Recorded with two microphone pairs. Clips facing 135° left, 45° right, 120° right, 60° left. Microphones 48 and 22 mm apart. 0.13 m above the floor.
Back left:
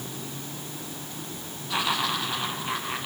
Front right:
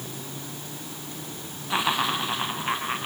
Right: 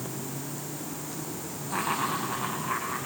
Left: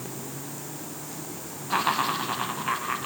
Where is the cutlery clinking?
I don't hear cutlery clinking.